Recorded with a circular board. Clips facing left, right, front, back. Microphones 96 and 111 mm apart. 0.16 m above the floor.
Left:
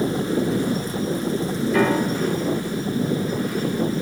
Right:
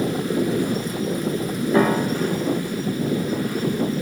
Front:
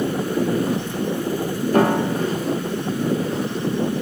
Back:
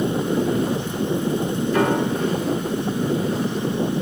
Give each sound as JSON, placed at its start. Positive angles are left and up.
{"t": 1.7, "sound": "a piano", "azimuth_deg": -35, "distance_m": 2.5}